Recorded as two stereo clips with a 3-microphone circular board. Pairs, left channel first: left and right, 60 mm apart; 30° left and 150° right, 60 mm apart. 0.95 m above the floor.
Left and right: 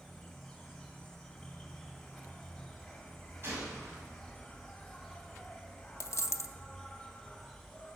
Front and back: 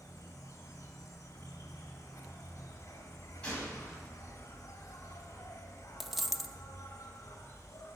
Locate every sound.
0.0 s an insect: 10° left, 2 m
3.4 s a gunshot: 40° right, 6 m
6.0 s a dropped coin: 125° left, 0.6 m